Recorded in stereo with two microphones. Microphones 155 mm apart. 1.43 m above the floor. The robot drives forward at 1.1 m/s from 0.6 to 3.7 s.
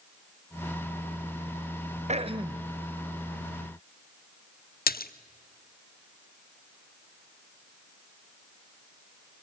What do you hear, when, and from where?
2.1 s throat clearing: 45° right (ahead or behind), 0.7 m; by 2.7 s 25° right (ahead or behind), 1.2 m
4.9 s a splash: 75° left (ahead or behind), 0.7 m